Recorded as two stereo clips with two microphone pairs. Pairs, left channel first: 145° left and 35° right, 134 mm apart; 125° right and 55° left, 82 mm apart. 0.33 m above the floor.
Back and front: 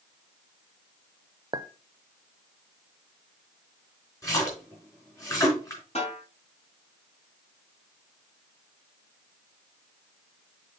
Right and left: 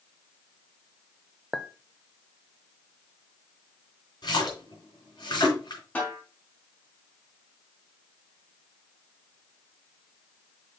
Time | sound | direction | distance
1.5 | a clink | 25° right | 0.5 m
4.2 | a splash | 150° right | 3.5 m
6.0 | a snare drum | 175° left | 3 m